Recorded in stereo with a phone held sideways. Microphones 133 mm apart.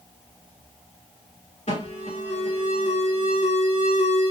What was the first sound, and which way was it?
An alarm, 55° left (ahead or behind).